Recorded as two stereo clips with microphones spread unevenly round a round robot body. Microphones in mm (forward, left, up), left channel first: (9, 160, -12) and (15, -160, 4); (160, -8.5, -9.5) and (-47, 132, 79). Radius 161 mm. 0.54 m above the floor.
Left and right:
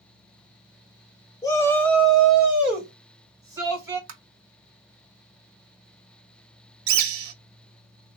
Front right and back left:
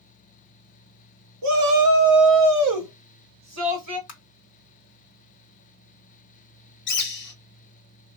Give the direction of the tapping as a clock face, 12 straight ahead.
2 o'clock.